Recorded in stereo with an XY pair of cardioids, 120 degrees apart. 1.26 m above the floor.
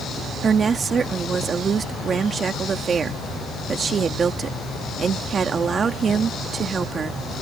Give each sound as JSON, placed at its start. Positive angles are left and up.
{"t": 0.4, "sound": "a woman speaking", "azimuth_deg": -40}